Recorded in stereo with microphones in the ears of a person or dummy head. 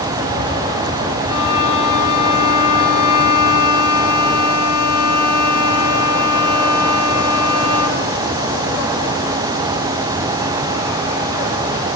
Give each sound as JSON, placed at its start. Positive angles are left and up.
{"t": 1.3, "sound": "a violin", "side_deg": -30, "distance_m": 5.5}